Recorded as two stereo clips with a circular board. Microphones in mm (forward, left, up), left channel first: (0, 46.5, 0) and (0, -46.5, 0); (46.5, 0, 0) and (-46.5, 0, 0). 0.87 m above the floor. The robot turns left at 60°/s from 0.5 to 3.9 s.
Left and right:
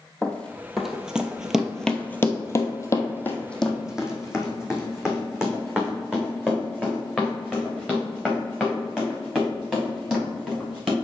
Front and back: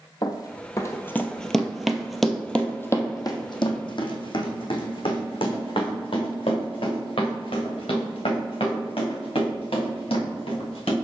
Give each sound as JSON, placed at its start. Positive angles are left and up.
{"t": 0.2, "sound": "running footsteps", "azimuth_deg": 15, "distance_m": 1.2}